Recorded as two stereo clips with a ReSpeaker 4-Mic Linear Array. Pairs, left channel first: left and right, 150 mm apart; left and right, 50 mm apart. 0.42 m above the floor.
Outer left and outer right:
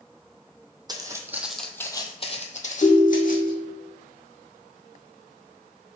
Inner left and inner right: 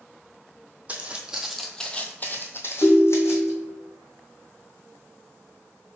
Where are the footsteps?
25° right (ahead or behind), 0.7 m; by 3.5 s 70° left (ahead or behind), 1.1 m.